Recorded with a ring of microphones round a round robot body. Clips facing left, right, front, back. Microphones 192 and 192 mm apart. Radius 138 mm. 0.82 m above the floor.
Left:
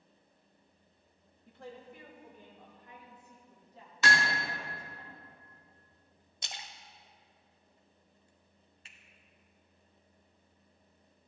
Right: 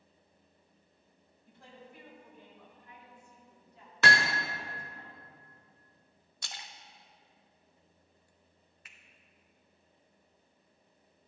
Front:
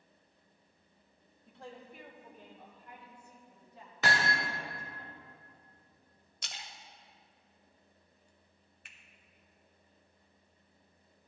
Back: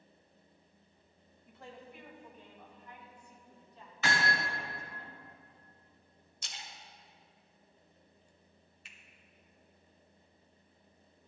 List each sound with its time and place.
1.5 s a woman speaking: 60° left, 2.5 m; by 5.0 s 30° left, 7 m
4.0 s hammering: 65° right, 1.0 m
6.4 s a splash: 20° left, 1.0 m
8.8 s a finger snap: 30° left, 1.3 m